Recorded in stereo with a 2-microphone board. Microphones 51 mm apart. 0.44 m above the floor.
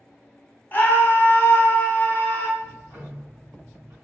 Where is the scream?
35° left (ahead or behind), 1.1 m.